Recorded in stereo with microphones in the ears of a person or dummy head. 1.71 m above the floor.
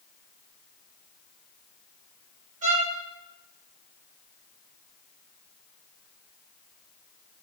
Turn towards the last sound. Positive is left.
turn(degrees=-40)  # may be behind; listen again after turning